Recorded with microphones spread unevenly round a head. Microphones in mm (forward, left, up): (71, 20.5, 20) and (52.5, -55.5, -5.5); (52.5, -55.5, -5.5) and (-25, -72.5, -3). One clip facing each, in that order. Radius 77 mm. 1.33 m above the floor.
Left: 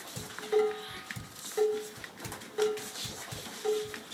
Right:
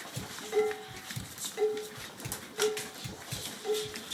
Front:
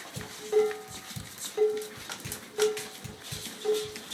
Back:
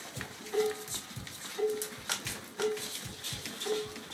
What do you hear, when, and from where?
0.2 s dishes clattering: 15° left, 3.5 m